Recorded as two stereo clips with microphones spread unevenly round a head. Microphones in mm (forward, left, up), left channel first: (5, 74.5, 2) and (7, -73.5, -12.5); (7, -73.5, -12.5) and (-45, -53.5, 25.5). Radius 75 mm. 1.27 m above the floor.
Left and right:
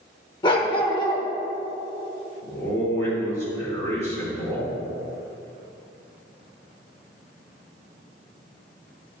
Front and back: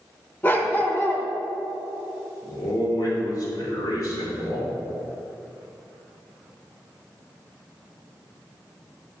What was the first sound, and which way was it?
A dog barking, 90° left.